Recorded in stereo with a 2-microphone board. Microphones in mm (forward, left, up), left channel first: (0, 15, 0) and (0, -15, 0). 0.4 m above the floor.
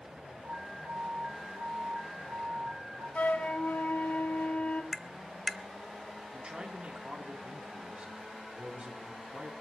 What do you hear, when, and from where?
0.4 s an alarm: 15° right (ahead or behind), 6.5 m
3.1 s a flute: 65° left (ahead or behind), 1.4 m
4.9 s tapping: 10° left (ahead or behind), 0.9 m
6.3 s a man speaking: 35° right (ahead or behind), 7 m